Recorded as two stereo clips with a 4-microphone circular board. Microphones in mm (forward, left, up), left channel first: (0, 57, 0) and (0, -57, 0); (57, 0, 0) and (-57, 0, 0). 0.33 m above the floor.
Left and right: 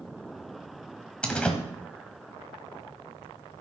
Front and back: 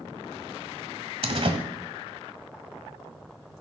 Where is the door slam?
170° left, 1.4 m.